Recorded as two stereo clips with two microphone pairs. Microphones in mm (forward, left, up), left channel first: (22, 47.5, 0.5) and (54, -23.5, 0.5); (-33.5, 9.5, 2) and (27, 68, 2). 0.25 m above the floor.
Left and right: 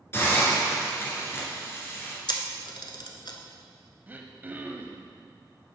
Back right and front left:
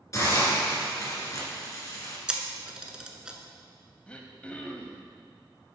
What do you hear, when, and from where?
0.1 s a hiss: 170° left, 1.9 m
2.3 s a camera shutter: 120° left, 0.8 m
4.1 s throat clearing: 80° right, 0.6 m